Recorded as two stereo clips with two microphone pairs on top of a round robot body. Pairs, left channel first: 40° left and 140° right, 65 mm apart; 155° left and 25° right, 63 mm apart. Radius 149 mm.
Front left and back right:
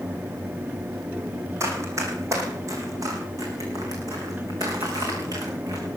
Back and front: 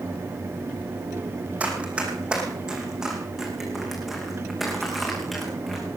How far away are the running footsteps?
About 3.5 m.